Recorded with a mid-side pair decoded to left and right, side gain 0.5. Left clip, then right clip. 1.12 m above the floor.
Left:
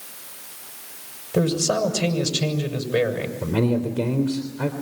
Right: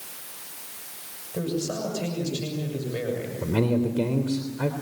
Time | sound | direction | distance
1.3 | a man speaking | 60° left | 7 m
3.4 | a man speaking | 10° left | 3.5 m